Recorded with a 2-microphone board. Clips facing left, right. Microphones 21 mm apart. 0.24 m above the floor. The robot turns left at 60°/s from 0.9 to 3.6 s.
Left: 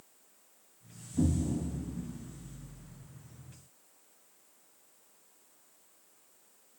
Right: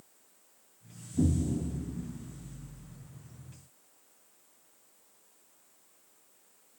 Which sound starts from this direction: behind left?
An explosion, at 1.1 s.